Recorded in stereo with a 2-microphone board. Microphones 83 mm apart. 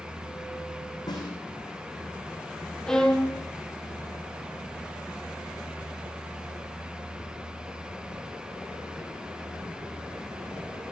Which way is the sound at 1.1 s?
50° left (ahead or behind).